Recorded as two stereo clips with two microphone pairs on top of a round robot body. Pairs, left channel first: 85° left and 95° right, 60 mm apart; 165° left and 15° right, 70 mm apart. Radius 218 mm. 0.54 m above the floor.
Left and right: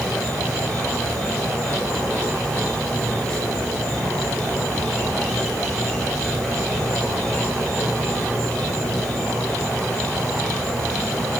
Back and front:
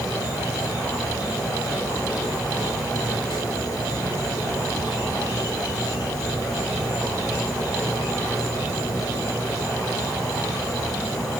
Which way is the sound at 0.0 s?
165° left.